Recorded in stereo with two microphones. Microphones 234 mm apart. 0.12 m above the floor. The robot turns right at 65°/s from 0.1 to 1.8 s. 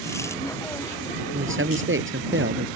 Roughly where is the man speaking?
Right.